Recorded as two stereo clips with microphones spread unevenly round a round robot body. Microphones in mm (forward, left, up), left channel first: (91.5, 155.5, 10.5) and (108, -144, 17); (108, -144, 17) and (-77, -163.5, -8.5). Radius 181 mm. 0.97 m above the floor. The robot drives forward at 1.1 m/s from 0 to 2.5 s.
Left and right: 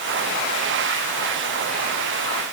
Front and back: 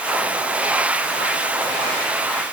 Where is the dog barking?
No dog barking in this recording.